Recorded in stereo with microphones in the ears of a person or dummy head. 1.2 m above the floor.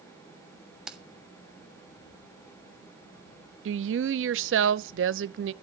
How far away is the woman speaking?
About 0.7 m.